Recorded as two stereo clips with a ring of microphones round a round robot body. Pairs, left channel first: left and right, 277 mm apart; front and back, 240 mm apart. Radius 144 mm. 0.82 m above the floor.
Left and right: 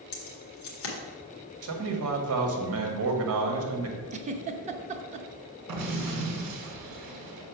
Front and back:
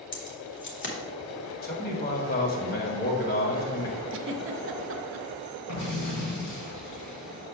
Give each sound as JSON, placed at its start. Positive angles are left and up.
{"t": 0.1, "sound": "keys jangling", "azimuth_deg": 45, "distance_m": 1.8}
{"t": 1.6, "sound": "a man speaking", "azimuth_deg": -55, "distance_m": 1.4}
{"t": 4.1, "sound": "a giggle", "azimuth_deg": -155, "distance_m": 0.7}
{"t": 5.7, "sound": "an explosion", "azimuth_deg": -55, "distance_m": 1.6}